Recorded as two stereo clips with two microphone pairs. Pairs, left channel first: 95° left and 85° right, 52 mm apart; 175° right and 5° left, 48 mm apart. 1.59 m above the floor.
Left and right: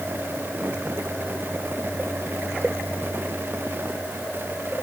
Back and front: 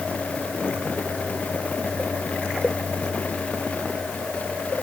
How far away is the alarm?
I don't hear an alarm.